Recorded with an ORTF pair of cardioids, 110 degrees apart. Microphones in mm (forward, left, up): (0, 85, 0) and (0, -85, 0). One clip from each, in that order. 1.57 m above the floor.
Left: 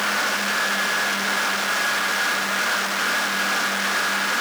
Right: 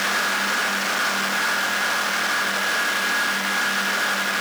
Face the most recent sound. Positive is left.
No sound to turn to.